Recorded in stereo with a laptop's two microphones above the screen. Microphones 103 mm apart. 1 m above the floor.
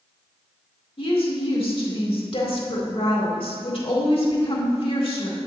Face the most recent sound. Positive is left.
turn(degrees=60)  # may be behind; listen again after turning